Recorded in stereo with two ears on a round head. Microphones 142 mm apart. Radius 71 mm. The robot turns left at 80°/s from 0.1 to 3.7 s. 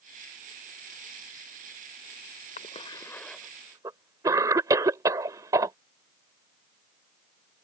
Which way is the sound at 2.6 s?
45° left (ahead or behind).